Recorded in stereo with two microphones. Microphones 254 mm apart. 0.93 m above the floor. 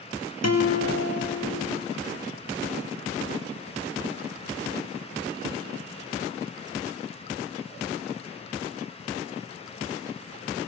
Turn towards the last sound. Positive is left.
turn(degrees=80)